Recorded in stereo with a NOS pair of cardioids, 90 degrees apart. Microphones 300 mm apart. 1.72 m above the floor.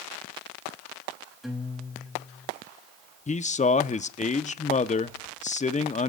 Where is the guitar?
Straight ahead, 4.5 m.